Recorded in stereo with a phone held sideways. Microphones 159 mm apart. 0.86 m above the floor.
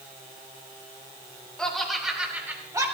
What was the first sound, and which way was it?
Laughter, 5° left (ahead or behind).